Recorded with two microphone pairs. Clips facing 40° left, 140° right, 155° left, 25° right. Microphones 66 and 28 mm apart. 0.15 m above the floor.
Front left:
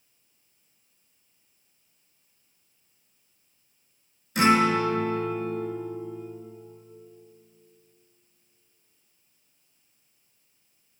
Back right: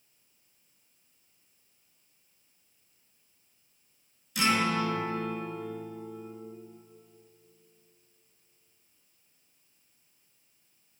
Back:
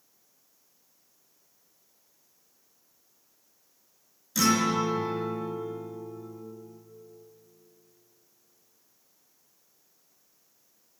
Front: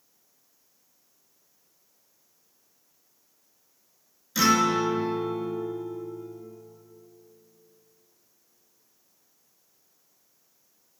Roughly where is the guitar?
Ahead left.